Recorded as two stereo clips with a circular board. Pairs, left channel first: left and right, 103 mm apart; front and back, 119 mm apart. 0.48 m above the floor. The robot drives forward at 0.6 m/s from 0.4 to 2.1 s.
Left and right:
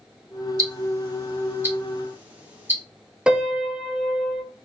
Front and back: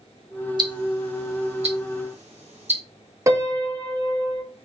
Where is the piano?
165° right, 0.7 m.